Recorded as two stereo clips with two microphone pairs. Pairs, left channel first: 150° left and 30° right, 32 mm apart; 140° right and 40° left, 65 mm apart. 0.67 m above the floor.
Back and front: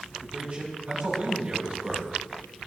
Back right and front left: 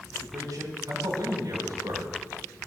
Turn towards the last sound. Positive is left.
turn(degrees=15)